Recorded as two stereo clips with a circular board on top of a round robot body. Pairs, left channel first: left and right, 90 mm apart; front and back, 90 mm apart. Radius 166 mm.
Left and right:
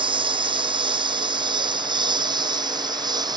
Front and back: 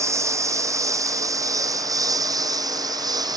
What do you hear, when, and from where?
0.0 s a lawn mower: 120° right; by 3.4 s 135° right